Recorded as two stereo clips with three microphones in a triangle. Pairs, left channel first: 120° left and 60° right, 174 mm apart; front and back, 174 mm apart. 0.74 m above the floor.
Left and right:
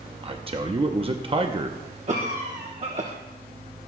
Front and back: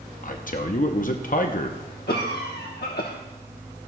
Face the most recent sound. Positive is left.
turn(degrees=-15)